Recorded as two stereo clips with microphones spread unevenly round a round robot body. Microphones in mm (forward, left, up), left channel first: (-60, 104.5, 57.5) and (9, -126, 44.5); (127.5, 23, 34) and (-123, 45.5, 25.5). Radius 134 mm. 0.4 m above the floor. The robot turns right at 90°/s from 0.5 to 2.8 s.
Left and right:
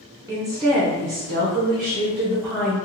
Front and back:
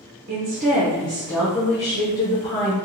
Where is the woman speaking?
145° right, 1.3 m; by 2.8 s 55° left, 1.3 m.